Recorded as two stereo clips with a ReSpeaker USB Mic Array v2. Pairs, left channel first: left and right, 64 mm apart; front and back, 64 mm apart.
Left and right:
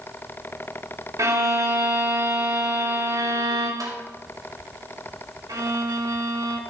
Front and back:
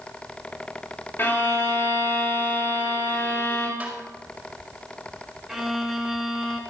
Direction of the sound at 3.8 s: 110° right.